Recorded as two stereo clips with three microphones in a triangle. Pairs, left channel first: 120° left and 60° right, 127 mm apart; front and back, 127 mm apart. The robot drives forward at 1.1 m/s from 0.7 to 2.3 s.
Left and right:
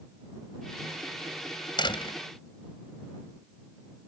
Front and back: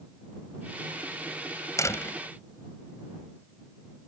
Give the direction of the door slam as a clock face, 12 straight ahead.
10 o'clock.